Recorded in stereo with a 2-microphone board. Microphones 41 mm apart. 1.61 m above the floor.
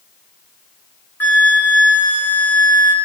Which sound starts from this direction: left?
A flute, at 1.2 s.